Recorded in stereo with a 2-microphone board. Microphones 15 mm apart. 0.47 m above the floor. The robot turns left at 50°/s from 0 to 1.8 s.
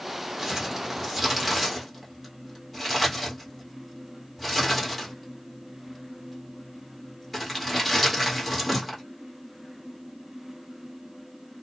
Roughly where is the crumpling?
Right.